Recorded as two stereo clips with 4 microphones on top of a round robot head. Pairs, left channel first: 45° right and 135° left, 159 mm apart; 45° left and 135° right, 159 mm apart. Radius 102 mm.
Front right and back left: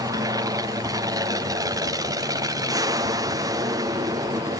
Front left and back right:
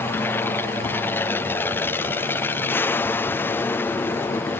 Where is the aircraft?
105° left.